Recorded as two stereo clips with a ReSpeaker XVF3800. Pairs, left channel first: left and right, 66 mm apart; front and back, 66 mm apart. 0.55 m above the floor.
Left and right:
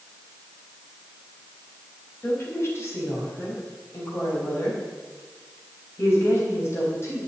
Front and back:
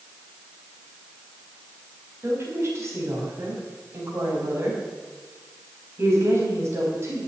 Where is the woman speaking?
135° left, 4 m.